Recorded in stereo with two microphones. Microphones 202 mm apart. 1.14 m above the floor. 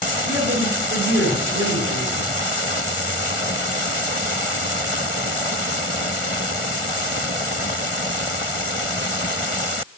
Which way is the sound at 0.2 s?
70° right (ahead or behind).